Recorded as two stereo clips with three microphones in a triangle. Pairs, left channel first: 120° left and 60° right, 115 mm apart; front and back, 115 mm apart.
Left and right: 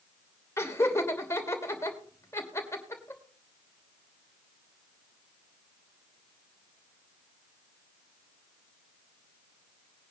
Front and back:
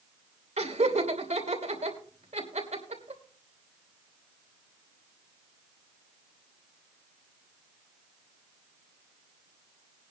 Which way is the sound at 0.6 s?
175° right.